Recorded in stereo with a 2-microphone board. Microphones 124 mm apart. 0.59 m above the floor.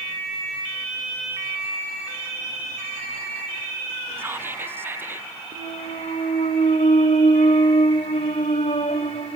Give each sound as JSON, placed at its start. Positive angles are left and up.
{"t": 4.2, "sound": "whispering", "side_deg": -15, "distance_m": 0.7}
{"t": 5.5, "sound": "a clunk", "side_deg": 65, "distance_m": 1.6}